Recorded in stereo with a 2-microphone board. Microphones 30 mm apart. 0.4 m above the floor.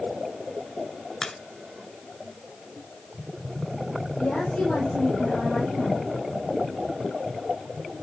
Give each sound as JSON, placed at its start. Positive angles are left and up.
{"t": 1.2, "sound": "a crack", "side_deg": 30, "distance_m": 1.0}
{"t": 4.2, "sound": "a woman speaking", "side_deg": 75, "distance_m": 7.5}